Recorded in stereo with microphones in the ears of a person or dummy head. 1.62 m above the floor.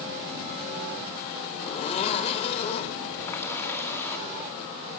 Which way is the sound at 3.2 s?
15° left (ahead or behind).